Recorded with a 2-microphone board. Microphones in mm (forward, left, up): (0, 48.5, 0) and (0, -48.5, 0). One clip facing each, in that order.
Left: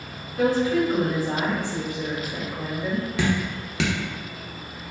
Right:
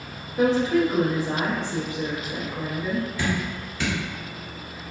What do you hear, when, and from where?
0.4 s a woman speaking: 25° right (ahead or behind), 0.7 m
3.2 s dripping: 75° left (ahead or behind), 0.7 m